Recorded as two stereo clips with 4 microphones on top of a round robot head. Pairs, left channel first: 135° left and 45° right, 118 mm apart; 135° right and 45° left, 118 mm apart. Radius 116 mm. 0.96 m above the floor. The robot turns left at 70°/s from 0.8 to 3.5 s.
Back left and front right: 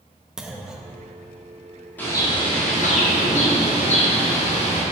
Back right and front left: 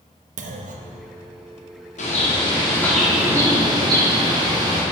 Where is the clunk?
40° left, 0.6 m; by 1.0 s 20° left, 0.6 m.